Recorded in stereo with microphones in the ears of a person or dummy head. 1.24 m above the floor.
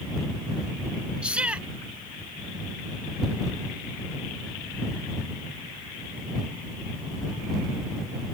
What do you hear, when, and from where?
1.2 s a shout: 10° right (ahead or behind)